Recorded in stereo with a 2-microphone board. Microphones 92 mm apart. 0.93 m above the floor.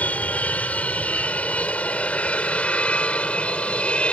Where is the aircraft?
15° left (ahead or behind); by 4.1 s 10° left (ahead or behind).